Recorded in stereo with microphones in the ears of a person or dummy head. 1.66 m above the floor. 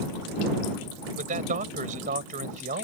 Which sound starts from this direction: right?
A man speaking, at 1.1 s.